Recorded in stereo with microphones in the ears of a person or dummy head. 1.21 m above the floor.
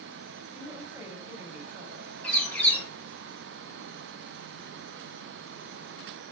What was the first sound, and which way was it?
A woman speaking, 10° right (ahead or behind).